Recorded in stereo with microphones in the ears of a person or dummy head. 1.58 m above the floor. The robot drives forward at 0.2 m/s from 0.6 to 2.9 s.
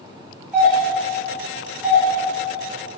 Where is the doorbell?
10° right (ahead or behind), 2.5 m.